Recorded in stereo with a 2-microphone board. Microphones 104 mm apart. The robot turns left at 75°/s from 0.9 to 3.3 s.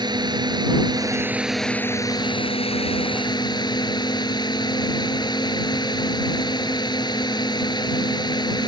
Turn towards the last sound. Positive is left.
turn(degrees=50)